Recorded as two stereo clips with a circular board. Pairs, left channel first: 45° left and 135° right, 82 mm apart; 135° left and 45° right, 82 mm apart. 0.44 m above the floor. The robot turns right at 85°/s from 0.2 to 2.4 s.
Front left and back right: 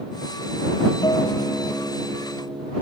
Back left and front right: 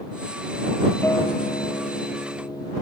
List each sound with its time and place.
1.0 s a guitar: 75° left; by 2.7 s 170° right